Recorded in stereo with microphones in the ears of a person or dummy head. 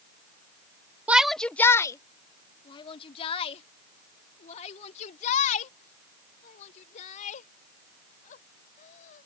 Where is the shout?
10° right (ahead or behind); by 9.3 s 45° left (ahead or behind).